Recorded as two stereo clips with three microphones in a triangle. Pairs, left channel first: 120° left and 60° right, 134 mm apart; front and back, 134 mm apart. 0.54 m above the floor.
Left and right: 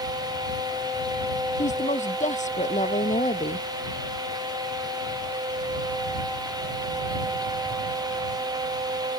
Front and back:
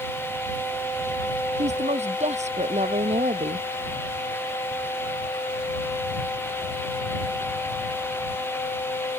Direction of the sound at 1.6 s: 145° left.